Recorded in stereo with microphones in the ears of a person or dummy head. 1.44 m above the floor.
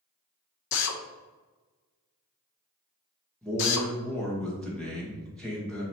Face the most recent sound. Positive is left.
turn(degrees=5)  # may be behind; listen again after turning